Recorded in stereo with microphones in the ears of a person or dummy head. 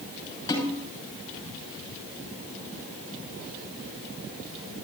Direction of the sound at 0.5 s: 20° left (ahead or behind).